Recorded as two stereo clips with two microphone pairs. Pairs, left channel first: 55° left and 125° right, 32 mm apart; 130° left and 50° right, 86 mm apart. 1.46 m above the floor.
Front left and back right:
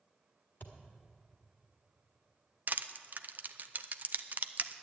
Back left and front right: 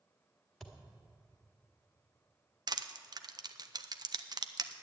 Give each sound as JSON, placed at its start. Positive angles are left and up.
{"t": 0.6, "sound": "a thud", "azimuth_deg": 50, "distance_m": 1.6}
{"t": 2.7, "sound": "crushing", "azimuth_deg": -90, "distance_m": 0.6}